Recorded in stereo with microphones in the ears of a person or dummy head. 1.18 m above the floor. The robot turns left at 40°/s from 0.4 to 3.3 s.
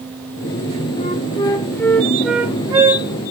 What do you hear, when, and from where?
1.0 s a flute: 45° left, 1.3 m; by 3.1 s 40° right, 1.3 m